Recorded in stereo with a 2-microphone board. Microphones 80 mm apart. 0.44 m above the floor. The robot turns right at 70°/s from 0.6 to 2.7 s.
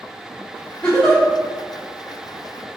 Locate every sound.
0.8 s a giggle: 15° left (ahead or behind), 1.0 m; by 1.2 s 5° right (ahead or behind), 1.0 m